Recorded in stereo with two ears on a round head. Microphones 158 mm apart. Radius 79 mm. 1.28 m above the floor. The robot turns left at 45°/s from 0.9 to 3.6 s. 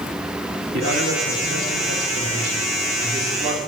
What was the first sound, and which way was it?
A man speaking, 50° right.